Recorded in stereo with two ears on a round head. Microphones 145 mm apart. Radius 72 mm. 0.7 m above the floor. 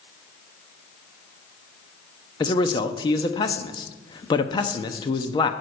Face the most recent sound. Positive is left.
turn(degrees=25)  # may be behind; listen again after turning